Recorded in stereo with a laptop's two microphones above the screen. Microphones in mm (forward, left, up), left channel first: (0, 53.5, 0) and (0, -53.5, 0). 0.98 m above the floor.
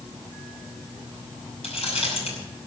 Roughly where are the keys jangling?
Left.